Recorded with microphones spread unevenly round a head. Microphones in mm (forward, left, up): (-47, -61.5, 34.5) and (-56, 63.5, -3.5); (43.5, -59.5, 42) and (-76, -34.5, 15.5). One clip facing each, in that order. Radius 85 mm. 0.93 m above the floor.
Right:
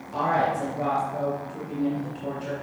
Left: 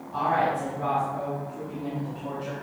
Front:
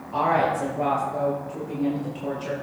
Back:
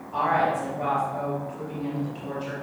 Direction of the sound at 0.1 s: 70° right.